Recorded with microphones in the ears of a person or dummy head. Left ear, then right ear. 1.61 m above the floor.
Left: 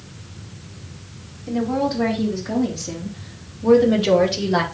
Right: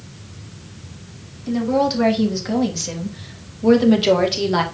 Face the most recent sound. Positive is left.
turn(degrees=-10)  # may be behind; listen again after turning